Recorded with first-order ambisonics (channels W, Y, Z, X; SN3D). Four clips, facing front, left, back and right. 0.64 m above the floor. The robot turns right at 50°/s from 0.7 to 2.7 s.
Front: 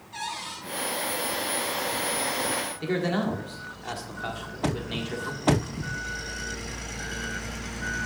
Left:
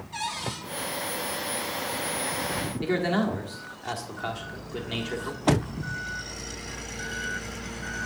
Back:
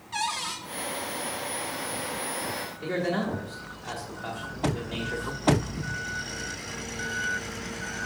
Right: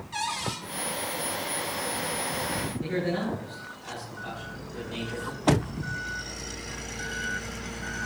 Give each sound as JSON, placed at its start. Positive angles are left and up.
{"t": 0.1, "sound": "a cupboard door", "azimuth_deg": -150, "distance_m": 1.2}
{"t": 2.8, "sound": "a man speaking", "azimuth_deg": 55, "distance_m": 1.3}